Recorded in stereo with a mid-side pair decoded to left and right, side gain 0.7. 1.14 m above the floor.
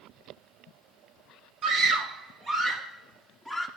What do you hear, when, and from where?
1.6 s a scream: 45° right, 1.9 m; by 3.7 s 10° right, 2.5 m